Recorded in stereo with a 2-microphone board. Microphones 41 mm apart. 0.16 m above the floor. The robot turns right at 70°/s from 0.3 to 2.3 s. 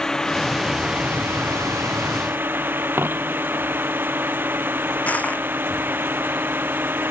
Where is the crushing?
40° left (ahead or behind).